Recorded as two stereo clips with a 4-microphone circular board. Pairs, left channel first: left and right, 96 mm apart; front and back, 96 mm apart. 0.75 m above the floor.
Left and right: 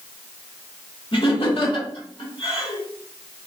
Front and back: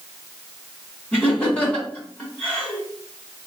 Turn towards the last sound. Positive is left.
turn(degrees=75)